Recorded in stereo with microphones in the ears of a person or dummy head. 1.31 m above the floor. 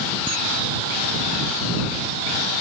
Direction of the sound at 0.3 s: 25° right (ahead or behind).